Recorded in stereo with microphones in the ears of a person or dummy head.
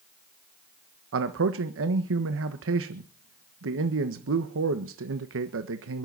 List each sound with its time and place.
1.1 s a man speaking: 65° right (ahead or behind), 1.4 m